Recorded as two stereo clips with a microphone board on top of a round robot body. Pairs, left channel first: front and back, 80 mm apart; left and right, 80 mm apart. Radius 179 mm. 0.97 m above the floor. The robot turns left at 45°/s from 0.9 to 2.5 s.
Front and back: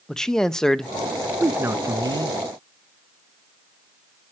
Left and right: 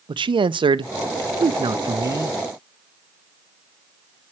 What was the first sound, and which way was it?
A man speaking, 85° right.